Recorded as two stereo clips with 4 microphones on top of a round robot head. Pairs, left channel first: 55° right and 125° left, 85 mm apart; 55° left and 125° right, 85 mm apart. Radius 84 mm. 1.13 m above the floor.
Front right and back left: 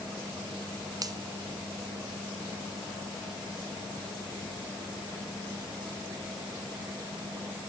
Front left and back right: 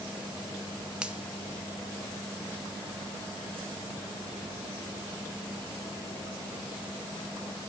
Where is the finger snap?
160° left, 0.9 m.